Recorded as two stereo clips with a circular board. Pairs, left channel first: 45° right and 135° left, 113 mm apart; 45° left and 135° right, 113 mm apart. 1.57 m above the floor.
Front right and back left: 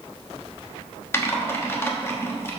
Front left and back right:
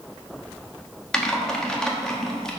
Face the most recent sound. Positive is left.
turn(degrees=-30)